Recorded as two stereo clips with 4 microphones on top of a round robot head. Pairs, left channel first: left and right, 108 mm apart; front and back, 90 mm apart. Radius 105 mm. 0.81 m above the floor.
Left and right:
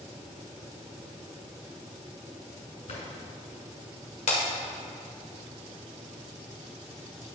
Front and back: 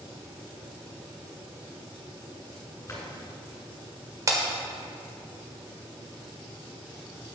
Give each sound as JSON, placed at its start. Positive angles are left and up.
{"t": 2.9, "sound": "a drawer", "azimuth_deg": 65, "distance_m": 2.5}
{"t": 4.3, "sound": "breaking glass", "azimuth_deg": 125, "distance_m": 1.3}